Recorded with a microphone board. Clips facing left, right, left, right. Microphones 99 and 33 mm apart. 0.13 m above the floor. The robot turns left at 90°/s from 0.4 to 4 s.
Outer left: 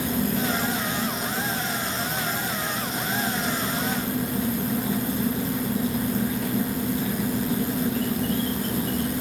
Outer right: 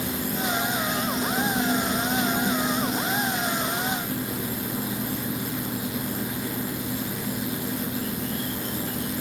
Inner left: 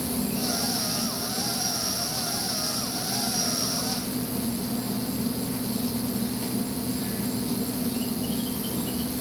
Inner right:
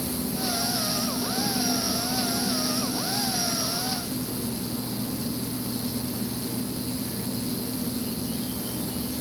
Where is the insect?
65° left, 1.5 m; by 9.2 s 100° left, 1.5 m.